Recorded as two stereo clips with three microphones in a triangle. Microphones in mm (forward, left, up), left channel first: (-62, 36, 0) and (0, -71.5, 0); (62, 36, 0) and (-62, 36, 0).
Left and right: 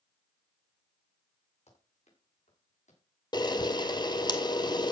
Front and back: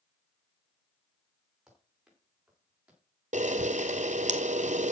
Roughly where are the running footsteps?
Left.